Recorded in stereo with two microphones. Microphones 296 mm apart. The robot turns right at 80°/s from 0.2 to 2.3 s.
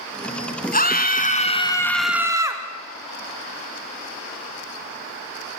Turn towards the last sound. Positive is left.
turn(degrees=-10)  # may be behind; listen again after turning